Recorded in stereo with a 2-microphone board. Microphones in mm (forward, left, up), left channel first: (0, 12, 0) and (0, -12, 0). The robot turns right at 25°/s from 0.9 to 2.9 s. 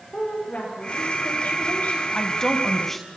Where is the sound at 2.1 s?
25° left (ahead or behind), 2.5 m; by 3.1 s 10° left (ahead or behind), 2.5 m.